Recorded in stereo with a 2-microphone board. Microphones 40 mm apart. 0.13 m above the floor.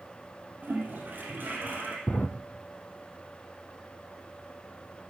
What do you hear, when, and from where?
0.6 s a toilet flushing: 50° right (ahead or behind), 2.5 m
2.1 s a drawer: 50° left (ahead or behind), 0.8 m